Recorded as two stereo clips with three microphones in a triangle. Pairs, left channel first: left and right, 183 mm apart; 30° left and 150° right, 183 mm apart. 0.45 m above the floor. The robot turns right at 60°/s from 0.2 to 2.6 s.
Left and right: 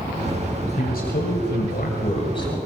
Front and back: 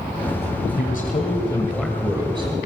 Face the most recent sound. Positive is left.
turn(degrees=165)